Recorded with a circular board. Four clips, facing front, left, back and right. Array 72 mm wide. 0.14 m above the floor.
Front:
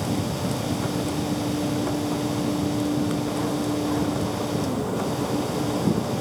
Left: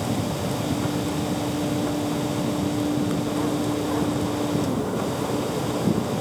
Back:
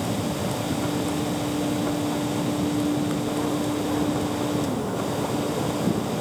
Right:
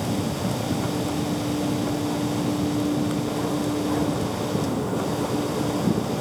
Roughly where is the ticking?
No ticking in this recording.